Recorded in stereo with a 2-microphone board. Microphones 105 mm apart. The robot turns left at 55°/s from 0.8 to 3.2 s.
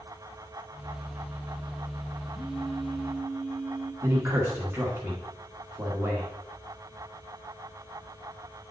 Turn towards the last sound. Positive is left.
turn(degrees=-20)  # may be behind; listen again after turning